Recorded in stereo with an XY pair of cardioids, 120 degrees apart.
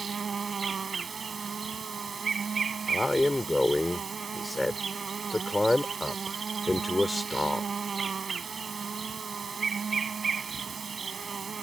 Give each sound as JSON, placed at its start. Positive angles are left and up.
{"t": 0.0, "sound": "an insect", "azimuth_deg": -35}
{"t": 2.9, "sound": "a man speaking", "azimuth_deg": 10}